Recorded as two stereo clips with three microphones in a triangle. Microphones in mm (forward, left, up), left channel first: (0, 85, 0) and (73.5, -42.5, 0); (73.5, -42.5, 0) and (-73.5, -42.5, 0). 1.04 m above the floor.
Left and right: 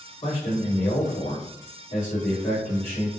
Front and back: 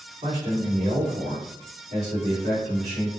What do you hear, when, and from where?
0.2 s a man speaking: 145° left, 2.5 m